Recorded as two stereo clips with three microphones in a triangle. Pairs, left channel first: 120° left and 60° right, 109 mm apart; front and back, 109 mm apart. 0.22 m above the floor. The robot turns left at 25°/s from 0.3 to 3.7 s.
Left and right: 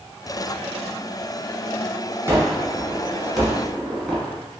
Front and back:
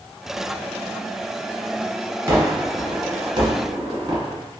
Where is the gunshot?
120° right, 1.2 m; by 4.4 s 155° right, 1.2 m.